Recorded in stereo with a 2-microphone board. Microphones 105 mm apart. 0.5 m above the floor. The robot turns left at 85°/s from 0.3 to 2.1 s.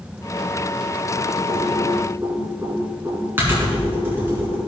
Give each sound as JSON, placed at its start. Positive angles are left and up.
{"t": 1.5, "sound": "typing on a keyboard", "side_deg": -75, "distance_m": 4.5}